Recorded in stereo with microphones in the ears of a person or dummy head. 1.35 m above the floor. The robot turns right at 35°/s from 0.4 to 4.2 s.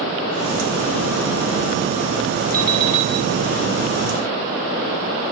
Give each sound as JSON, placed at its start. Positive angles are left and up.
{"t": 2.5, "sound": "an alarm clock", "side_deg": -45, "distance_m": 3.0}